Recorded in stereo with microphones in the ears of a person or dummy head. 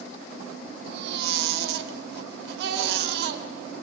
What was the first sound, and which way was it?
A baby crying, 70° right (ahead or behind).